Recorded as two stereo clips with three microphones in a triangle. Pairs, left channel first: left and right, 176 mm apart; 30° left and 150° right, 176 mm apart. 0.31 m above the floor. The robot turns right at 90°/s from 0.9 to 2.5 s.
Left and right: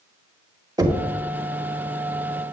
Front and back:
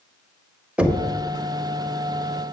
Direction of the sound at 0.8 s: 75° right.